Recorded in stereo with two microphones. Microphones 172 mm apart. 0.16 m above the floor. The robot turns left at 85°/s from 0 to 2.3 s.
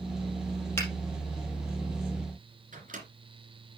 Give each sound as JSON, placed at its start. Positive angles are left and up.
{"t": 0.8, "sound": "a finger snap", "side_deg": 15, "distance_m": 4.5}
{"t": 2.7, "sound": "a microwave", "side_deg": -50, "distance_m": 2.5}